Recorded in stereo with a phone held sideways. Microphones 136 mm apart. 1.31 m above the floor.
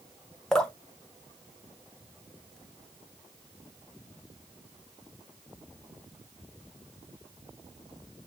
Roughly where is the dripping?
Centre.